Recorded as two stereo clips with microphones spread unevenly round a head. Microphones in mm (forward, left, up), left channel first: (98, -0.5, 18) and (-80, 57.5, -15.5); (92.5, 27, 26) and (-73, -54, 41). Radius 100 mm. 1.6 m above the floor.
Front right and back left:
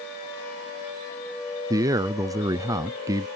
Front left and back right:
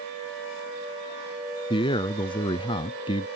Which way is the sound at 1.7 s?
90° left.